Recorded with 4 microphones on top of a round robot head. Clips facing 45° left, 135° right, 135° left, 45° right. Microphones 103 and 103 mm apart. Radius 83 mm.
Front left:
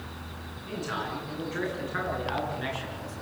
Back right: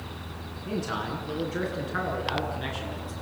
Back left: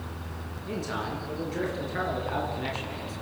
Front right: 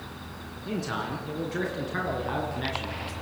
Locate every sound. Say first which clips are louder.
0.7 s a man speaking: back right 2 dB, front right 1 dB; 70° right, 8.5 m; by 3.1 s 60° right, 9.5 m